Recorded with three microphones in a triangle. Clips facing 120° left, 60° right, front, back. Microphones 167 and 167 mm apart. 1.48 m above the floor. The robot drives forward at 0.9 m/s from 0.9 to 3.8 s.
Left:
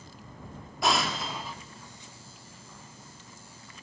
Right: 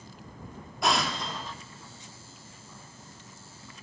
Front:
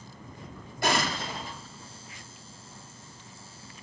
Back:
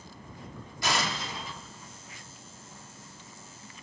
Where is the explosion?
30° left, 2 m; by 1.6 s 40° left, 1.8 m.